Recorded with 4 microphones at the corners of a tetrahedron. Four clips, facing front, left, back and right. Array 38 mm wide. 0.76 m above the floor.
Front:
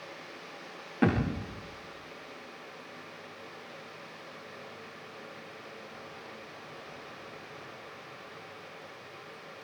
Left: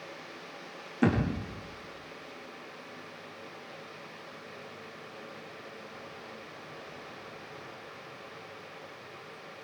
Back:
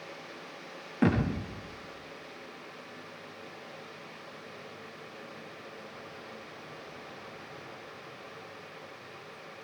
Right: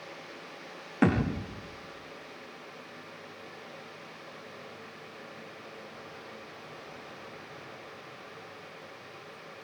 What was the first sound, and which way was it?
A thud, 85° right.